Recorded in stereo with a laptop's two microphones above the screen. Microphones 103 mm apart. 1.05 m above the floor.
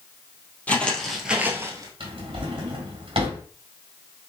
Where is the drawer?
60° right (ahead or behind), 1.7 m.